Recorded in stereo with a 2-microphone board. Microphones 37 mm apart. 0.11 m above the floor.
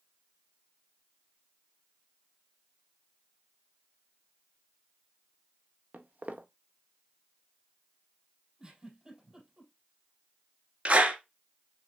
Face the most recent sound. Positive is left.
turn(degrees=-35)  # may be behind; listen again after turning